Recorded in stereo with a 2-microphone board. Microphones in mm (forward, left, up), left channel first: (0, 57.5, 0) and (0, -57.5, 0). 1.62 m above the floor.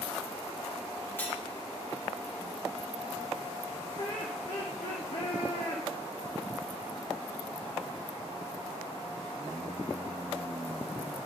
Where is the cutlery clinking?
20° left (ahead or behind), 2 m.